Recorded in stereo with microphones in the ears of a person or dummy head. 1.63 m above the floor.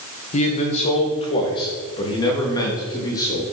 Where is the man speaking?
40° left (ahead or behind), 2 m; by 3.4 s 20° left (ahead or behind), 3.5 m.